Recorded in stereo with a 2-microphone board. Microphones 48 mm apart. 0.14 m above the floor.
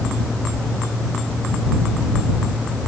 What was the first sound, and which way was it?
Only background noise.